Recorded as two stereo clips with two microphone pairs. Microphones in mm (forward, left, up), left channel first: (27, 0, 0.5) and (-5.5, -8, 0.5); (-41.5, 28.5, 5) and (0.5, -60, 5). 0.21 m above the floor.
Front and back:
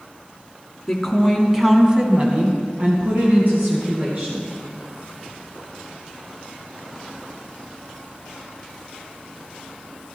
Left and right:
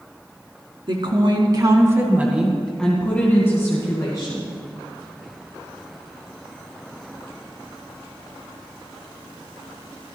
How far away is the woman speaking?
About 2.5 m.